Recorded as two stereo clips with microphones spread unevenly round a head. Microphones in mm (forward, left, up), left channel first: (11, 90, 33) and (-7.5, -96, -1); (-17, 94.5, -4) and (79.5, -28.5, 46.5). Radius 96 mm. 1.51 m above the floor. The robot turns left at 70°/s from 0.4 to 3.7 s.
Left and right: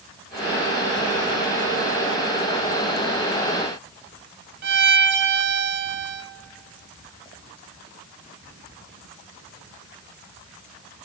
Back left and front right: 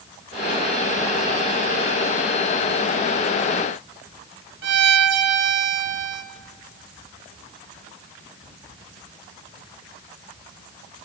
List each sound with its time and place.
4.6 s a violin: 60° right, 0.8 m